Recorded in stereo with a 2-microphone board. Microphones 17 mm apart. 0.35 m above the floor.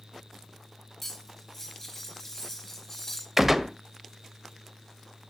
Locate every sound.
1.0 s cutlery clinking: 25° left (ahead or behind), 1.1 m
3.4 s a gunshot: 20° right (ahead or behind), 0.7 m